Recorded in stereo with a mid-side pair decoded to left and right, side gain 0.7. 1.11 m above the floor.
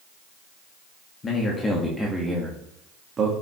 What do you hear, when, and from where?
1.2 s a man speaking: 25° left, 1.8 m; by 3.3 s 30° right, 2.0 m